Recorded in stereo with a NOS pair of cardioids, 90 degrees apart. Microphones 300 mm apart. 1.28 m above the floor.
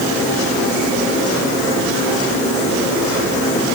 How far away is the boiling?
I don't hear boiling.